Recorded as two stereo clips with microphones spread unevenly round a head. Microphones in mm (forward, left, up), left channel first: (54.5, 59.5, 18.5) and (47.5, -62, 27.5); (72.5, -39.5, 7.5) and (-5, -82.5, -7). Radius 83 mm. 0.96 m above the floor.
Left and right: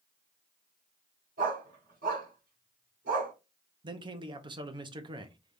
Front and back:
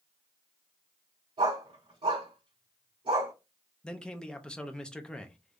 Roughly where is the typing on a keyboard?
No typing on a keyboard in this recording.